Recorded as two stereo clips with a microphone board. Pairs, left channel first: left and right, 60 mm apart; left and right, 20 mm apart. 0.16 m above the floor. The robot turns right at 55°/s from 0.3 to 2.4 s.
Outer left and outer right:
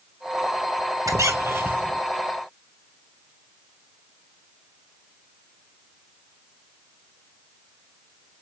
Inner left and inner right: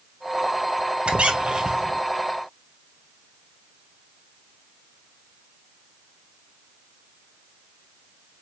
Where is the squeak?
70° right, 0.9 m; by 2.0 s 20° right, 0.9 m.